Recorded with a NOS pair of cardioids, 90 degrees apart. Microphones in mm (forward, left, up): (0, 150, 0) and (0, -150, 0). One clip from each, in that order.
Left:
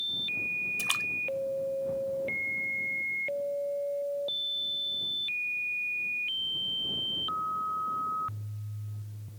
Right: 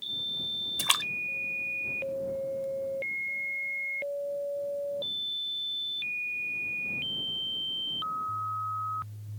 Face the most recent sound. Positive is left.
turn(degrees=-50)